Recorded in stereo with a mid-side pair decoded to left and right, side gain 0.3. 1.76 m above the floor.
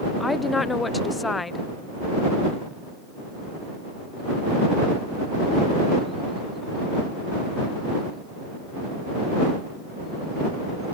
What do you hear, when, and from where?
0.2 s a woman speaking: 35° left